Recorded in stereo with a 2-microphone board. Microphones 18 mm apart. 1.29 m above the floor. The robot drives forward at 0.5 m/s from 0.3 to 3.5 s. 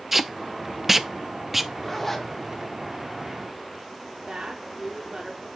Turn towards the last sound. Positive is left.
turn(degrees=-55)  # may be behind; listen again after turning